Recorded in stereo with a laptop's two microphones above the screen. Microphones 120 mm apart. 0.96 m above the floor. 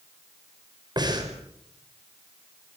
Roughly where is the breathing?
Right.